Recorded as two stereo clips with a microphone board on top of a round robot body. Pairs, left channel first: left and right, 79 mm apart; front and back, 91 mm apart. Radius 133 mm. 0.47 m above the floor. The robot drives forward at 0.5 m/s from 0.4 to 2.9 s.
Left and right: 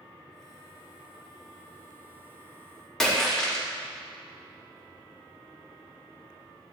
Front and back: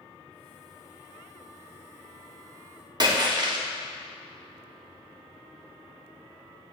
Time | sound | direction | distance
3.0 | a splash | 175° left | 0.8 m